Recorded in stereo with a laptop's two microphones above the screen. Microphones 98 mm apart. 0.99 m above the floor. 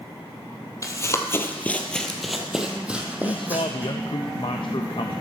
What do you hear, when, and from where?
0.8 s running footsteps: 35° left (ahead or behind), 1.2 m; by 3.9 s 20° right (ahead or behind), 2 m
3.2 s a man speaking: 55° left (ahead or behind), 0.6 m